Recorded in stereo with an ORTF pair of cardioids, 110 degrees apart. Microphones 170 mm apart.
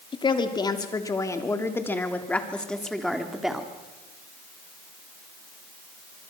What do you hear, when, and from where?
0.1 s a woman speaking: 30° left, 3 m; by 3.7 s 5° right, 3 m